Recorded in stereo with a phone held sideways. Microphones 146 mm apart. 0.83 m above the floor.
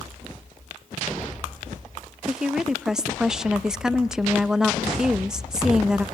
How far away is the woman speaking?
About 0.6 m.